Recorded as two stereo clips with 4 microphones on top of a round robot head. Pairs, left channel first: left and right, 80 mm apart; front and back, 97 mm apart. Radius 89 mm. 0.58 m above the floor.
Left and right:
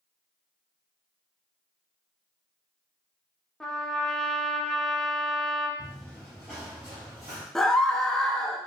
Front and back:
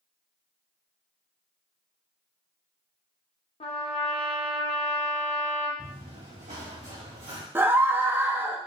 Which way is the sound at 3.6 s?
10° left.